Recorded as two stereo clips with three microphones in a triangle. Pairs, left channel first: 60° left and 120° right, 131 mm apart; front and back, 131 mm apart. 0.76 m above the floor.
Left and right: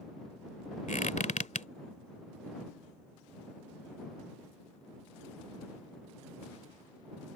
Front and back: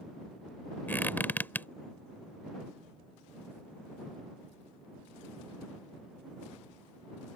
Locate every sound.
0.9 s a squeak: 75° left